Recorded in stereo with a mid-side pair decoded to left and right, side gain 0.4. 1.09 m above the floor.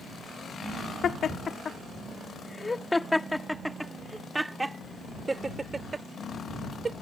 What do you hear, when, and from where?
1.0 s laughter: 60° left; by 6.9 s 40° right